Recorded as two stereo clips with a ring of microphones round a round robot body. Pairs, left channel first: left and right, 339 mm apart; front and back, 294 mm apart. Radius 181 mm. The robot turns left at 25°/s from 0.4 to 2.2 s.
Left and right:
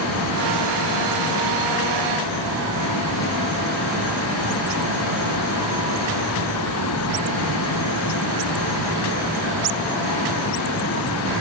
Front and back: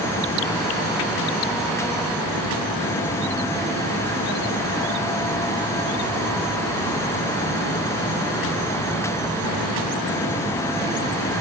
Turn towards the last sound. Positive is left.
No sound to turn to.